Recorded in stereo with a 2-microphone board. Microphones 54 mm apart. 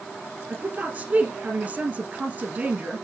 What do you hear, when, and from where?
0.5 s a woman speaking: 35° right (ahead or behind), 1.6 m